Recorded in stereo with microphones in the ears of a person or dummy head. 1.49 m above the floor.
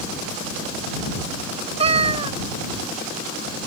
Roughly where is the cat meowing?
Right.